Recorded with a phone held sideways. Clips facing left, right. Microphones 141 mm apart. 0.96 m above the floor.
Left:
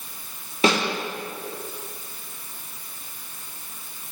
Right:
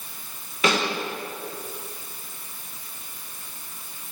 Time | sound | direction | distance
0.6 | a snare drum | 30° left (ahead or behind) | 1.7 m